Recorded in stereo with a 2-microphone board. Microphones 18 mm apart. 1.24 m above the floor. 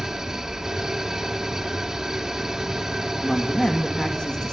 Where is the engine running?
40° right (ahead or behind), 2.5 m.